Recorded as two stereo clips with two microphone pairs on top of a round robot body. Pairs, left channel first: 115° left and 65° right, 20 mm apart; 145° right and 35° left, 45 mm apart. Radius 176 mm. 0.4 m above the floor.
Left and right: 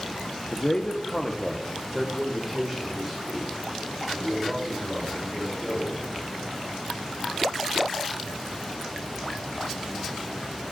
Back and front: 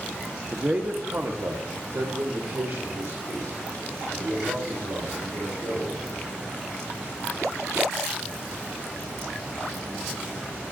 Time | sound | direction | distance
0.5 | a man speaking | 95° left | 1.0 m